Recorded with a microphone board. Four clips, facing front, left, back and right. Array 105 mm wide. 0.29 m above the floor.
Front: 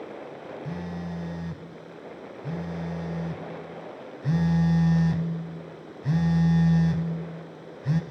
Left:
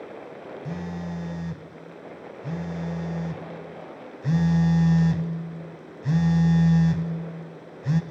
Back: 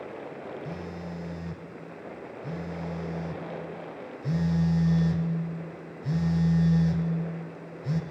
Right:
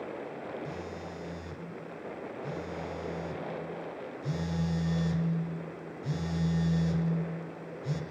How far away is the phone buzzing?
About 1.0 m.